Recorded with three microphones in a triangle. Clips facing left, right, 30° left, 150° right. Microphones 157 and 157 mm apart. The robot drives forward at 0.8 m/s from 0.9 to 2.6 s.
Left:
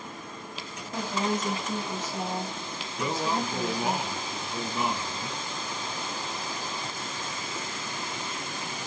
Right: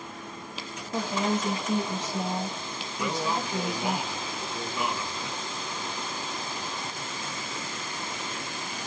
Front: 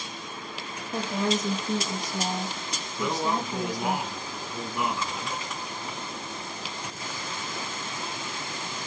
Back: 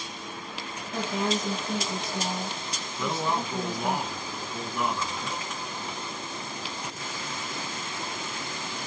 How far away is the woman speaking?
About 5.5 m.